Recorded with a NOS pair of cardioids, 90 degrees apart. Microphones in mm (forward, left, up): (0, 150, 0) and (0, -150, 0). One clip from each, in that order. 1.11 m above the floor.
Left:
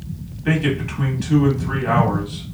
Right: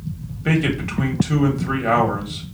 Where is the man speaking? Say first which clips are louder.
Even; 35° right, 1.4 m.